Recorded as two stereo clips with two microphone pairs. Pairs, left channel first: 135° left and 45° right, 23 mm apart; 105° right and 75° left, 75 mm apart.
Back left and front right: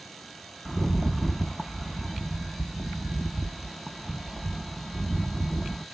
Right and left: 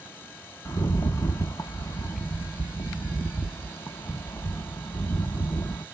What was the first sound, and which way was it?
A rattle, 135° right.